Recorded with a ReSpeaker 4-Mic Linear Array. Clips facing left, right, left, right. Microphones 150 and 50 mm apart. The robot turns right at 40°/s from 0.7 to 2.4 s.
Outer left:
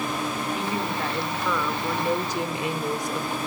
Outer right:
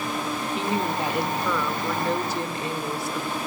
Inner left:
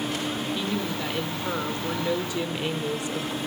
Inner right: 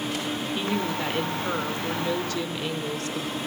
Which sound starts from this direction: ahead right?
A woman speaking, at 0.6 s.